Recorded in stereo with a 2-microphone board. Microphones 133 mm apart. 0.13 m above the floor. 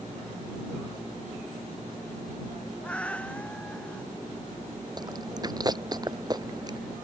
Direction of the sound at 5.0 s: 30° right (ahead or behind).